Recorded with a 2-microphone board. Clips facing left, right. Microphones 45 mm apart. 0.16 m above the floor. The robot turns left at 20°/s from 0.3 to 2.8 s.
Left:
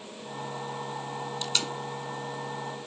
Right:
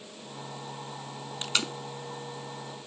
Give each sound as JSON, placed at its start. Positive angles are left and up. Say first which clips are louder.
{"t": 1.4, "sound": "tape being pulled", "louder": "right 3 dB", "side_deg": -35, "distance_m": 0.9}